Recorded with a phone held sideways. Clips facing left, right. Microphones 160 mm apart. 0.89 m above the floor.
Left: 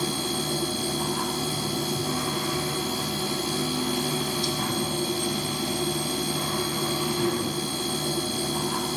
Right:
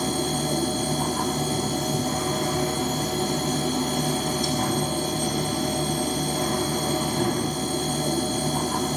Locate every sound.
0.0 s a machine running: 45° right (ahead or behind), 1.2 m